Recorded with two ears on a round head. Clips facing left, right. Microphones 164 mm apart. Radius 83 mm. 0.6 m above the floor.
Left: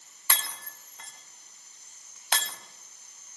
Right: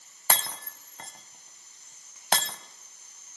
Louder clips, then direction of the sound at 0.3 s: Right 6 dB; 35° right (ahead or behind).